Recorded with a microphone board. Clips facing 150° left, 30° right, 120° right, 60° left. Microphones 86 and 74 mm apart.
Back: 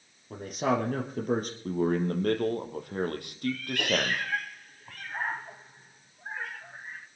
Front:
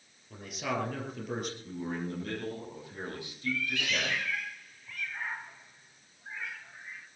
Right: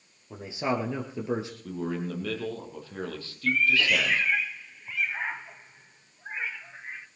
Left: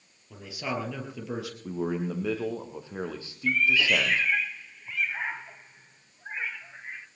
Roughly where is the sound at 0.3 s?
Behind.